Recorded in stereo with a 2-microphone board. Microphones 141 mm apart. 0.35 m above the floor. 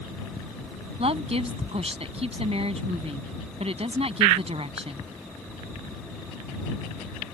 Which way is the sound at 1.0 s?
45° right (ahead or behind).